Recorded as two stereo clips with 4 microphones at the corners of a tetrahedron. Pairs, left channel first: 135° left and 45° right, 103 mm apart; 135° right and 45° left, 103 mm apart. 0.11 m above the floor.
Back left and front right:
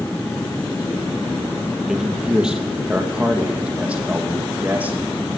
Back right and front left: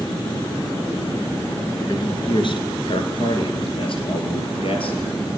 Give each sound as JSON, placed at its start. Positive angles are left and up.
{"t": 1.9, "sound": "a man speaking", "azimuth_deg": -130, "distance_m": 2.0}